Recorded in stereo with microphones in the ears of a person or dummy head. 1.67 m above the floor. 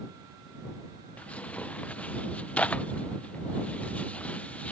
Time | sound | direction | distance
1.2 | tearing paper | 5° left (ahead or behind) | ?